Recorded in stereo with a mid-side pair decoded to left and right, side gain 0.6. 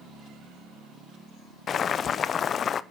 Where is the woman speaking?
No woman speaking in this recording.